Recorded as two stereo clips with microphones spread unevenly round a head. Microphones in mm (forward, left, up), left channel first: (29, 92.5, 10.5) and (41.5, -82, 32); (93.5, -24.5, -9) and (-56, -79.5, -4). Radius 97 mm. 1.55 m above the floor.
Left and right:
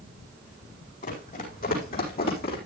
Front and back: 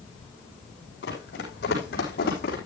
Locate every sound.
1.0 s running footsteps: 50° left, 4.5 m; by 2.6 s 60° left, 4 m